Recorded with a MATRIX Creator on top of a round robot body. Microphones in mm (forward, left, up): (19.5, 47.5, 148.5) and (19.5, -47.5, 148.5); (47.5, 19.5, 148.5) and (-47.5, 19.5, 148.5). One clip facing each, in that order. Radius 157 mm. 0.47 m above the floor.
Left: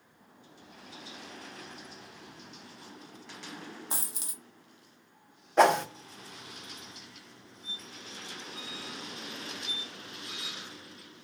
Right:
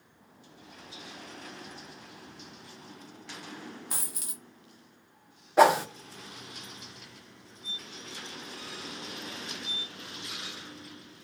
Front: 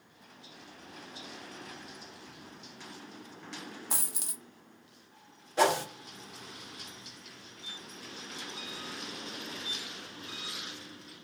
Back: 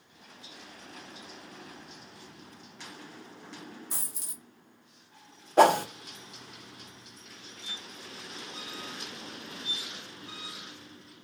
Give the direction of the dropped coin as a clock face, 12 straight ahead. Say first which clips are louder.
Left 1 dB, front 4 dB; 11 o'clock.